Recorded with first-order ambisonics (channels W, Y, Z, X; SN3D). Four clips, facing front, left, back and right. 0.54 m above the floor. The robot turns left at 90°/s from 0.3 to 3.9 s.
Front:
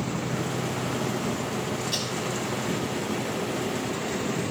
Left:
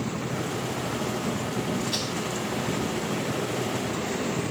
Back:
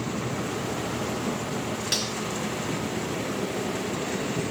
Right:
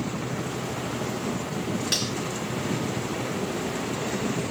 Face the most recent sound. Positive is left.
turn(degrees=50)